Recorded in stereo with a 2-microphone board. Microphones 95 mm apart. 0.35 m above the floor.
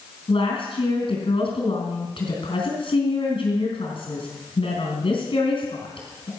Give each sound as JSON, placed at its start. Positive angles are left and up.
{"t": 0.3, "sound": "a woman speaking", "side_deg": 70, "distance_m": 4.5}